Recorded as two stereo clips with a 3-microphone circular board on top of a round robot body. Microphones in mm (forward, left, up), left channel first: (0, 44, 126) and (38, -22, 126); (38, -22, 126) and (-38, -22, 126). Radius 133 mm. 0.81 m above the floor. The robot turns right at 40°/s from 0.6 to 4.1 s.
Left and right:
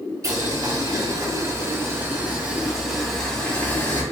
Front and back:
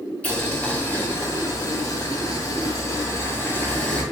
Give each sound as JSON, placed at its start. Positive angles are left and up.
{"t": 0.2, "sound": "boiling", "azimuth_deg": -70, "distance_m": 1.0}